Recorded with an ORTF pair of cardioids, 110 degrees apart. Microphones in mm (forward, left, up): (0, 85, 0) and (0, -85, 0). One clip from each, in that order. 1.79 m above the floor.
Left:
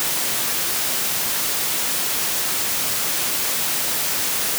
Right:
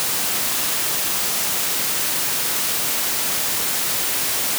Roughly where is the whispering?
I don't hear whispering.